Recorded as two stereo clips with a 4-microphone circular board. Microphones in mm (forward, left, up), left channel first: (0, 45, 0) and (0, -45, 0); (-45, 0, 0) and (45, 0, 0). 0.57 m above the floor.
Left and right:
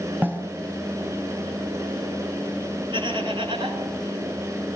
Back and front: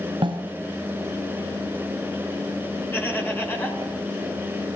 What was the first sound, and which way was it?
A snare drum, 20° right.